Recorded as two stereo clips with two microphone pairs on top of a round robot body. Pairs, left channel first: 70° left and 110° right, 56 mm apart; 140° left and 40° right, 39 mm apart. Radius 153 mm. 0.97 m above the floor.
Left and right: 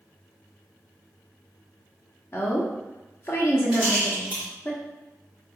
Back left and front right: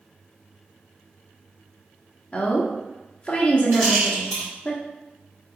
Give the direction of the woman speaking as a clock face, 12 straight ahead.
9 o'clock.